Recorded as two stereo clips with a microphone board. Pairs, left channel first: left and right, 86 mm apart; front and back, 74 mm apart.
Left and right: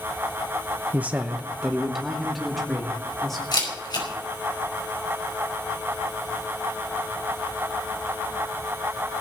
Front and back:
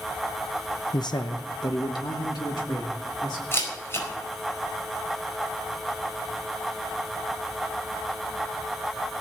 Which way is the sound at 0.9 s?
20° right.